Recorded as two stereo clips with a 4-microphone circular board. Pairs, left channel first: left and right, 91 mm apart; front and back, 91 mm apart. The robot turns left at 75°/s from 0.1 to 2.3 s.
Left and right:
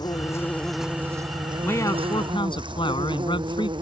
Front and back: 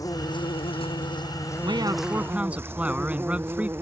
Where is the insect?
50° left; by 3.8 s 115° right.